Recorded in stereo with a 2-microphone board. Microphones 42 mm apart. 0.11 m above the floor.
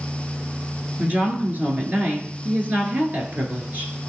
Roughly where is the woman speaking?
Right.